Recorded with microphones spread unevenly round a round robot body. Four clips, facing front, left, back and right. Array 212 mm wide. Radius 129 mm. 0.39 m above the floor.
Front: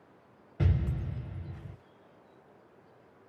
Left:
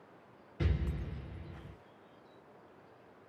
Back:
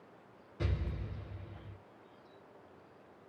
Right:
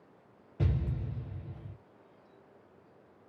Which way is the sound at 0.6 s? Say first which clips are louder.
Right 3 dB, front 7 dB; 50° right.